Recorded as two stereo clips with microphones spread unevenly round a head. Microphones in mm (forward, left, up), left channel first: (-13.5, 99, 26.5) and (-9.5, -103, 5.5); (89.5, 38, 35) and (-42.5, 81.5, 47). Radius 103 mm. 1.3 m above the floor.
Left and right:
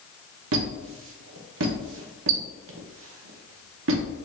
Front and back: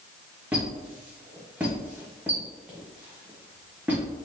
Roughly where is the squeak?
Behind right.